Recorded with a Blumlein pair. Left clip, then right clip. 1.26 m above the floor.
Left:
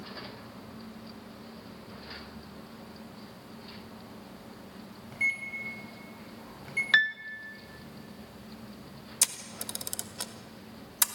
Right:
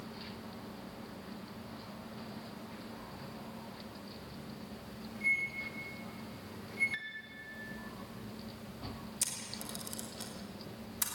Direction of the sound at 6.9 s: 40° left.